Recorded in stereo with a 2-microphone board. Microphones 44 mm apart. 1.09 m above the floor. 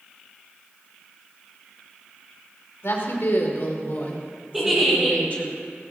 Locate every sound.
2.8 s a woman speaking: 65° left (ahead or behind), 3 m; by 5.5 s 30° left (ahead or behind), 3 m
4.5 s a giggle: 5° right (ahead or behind), 5.5 m